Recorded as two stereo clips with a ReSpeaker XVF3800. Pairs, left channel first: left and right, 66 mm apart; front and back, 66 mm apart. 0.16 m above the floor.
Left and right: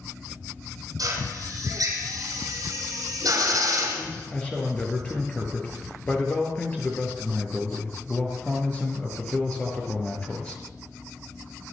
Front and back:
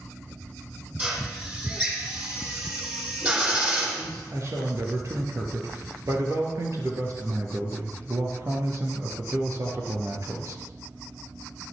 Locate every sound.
1.0 s a drill: 115° right, 7 m
4.0 s a man speaking: 155° left, 3.5 m